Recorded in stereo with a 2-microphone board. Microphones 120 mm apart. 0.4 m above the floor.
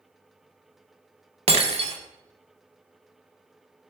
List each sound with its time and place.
1.5 s breaking glass: 55° right (ahead or behind), 0.5 m